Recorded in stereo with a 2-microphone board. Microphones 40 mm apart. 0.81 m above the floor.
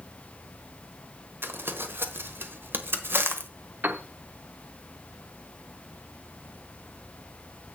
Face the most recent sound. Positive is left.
turn(degrees=-50)  # may be behind; listen again after turning